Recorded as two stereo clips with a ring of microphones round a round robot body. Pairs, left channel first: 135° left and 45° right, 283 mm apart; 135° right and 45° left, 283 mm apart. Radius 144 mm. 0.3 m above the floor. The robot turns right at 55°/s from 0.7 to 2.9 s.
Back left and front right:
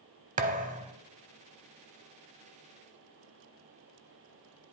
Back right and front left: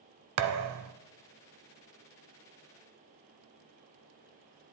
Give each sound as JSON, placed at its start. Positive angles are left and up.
{"t": 0.4, "sound": "a thud", "azimuth_deg": 15, "distance_m": 0.7}